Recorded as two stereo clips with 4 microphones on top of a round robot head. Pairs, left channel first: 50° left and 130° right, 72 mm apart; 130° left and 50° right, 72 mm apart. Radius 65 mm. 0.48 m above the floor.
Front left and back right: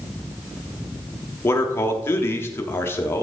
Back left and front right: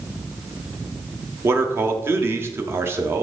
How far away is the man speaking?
About 1.2 m.